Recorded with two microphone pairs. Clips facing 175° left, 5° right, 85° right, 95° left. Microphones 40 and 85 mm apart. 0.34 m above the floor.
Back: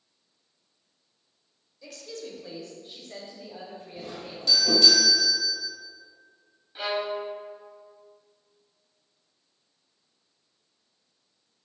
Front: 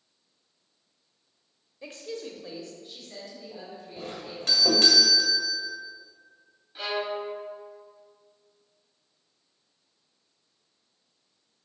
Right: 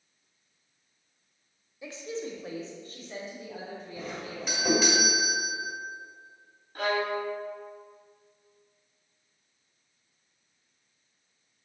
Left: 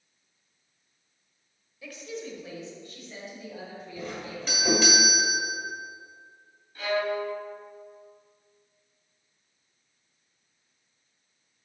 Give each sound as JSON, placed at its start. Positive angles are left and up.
{"t": 1.8, "sound": "a woman speaking", "azimuth_deg": -35, "distance_m": 1.0}
{"t": 4.0, "sound": "a doorbell", "azimuth_deg": 0, "distance_m": 1.8}
{"t": 6.8, "sound": "a violin", "azimuth_deg": -110, "distance_m": 0.9}